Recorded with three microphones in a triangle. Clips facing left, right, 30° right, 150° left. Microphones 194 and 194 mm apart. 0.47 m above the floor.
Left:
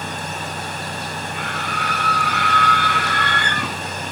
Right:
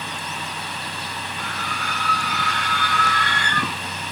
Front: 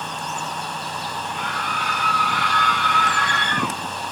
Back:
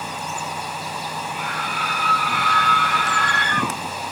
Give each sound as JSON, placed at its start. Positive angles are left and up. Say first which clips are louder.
{"t": 1.3, "sound": "a scream", "louder": "left 4 dB, even", "azimuth_deg": 65, "distance_m": 8.5}